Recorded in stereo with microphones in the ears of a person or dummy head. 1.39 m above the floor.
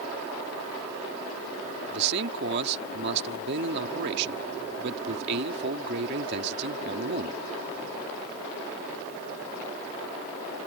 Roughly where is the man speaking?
Right.